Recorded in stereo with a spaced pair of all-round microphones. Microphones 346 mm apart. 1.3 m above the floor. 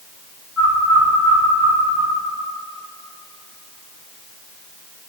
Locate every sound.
0.6 s a bird: 65° right (ahead or behind), 2 m